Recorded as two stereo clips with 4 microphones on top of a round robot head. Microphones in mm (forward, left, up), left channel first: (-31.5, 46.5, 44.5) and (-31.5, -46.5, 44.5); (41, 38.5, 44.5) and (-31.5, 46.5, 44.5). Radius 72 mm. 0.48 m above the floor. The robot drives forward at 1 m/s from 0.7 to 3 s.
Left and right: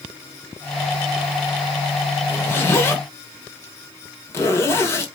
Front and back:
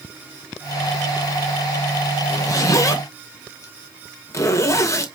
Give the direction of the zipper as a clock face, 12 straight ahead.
11 o'clock.